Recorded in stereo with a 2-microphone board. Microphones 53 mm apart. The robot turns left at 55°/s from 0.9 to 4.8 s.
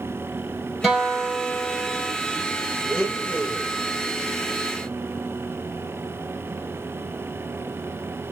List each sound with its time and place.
0.8 s a guitar: 175° right, 1.4 m; by 2.1 s 120° left, 1.4 m
2.9 s a blender: 170° left, 1.2 m; by 3.7 s 125° left, 1.2 m